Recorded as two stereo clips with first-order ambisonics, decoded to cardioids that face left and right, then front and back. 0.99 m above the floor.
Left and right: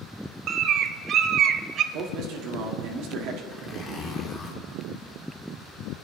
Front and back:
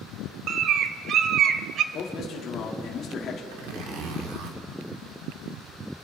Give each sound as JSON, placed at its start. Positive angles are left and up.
{"t": 0.5, "sound": "a bird", "azimuth_deg": -135, "distance_m": 0.6}
{"t": 1.9, "sound": "a man speaking", "azimuth_deg": -55, "distance_m": 1.6}
{"t": 3.5, "sound": "a zipper", "azimuth_deg": 170, "distance_m": 2.0}